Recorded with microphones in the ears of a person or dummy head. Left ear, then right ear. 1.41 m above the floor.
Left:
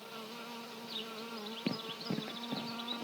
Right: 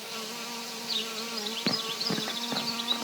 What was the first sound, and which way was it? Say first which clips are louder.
An insect: right 9 dB; 75° right (ahead or behind).